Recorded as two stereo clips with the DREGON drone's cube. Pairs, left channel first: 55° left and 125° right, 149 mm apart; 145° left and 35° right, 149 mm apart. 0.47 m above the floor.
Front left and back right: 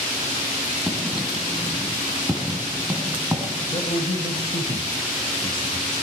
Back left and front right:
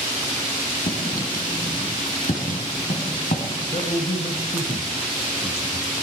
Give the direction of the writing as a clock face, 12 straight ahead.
7 o'clock.